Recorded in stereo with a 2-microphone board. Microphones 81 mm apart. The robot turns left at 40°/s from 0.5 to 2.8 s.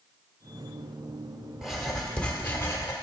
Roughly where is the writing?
Behind.